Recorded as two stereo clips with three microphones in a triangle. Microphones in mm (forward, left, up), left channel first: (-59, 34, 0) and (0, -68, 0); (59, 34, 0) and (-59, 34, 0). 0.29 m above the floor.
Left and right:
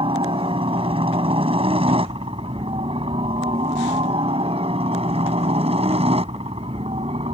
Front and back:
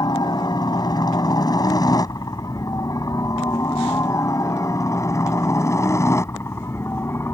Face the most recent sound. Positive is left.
turn(degrees=-65)